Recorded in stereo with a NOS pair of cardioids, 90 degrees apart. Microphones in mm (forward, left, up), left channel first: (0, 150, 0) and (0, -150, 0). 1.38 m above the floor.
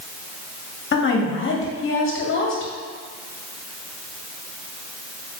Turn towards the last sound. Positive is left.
turn(degrees=40)